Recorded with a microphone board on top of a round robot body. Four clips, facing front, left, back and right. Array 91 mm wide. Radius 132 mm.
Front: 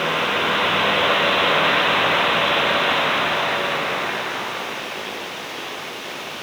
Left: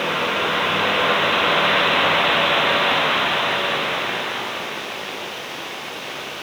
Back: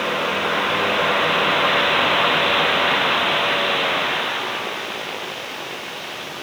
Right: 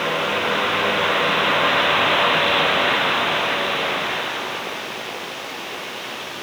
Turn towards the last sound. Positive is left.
No sound to turn to.